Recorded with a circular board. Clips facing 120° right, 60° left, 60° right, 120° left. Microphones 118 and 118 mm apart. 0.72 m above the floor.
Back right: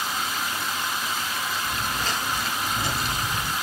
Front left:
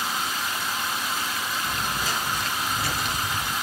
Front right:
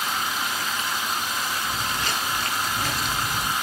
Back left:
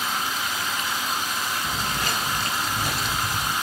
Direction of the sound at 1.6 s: 125° left.